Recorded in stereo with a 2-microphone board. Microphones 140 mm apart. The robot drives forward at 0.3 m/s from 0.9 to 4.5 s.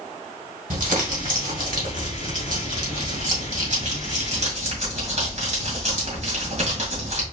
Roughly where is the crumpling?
Right.